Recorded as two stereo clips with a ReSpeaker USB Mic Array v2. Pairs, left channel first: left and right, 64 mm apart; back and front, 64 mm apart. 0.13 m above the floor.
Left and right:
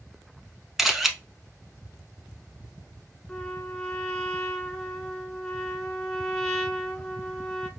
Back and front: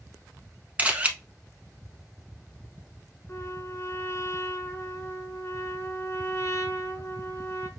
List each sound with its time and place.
0.8 s a camera shutter: 10° right, 0.8 m
3.3 s a trumpet: 165° left, 0.9 m